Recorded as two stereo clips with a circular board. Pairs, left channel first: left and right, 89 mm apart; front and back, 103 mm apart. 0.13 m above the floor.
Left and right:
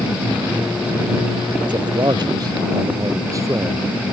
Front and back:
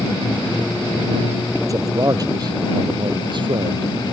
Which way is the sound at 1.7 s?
125° right.